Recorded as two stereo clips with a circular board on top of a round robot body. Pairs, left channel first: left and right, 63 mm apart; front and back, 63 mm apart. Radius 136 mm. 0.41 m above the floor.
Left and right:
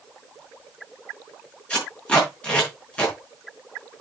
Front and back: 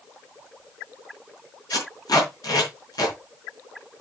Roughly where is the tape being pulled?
Ahead.